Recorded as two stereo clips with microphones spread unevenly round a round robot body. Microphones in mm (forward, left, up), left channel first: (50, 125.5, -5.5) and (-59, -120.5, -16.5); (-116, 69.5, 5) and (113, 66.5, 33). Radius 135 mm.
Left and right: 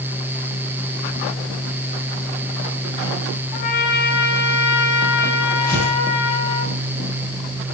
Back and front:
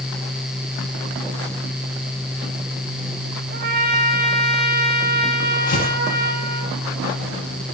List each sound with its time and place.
3.5 s a trumpet: 45° left, 1.7 m
5.7 s tearing paper: 125° left, 4.5 m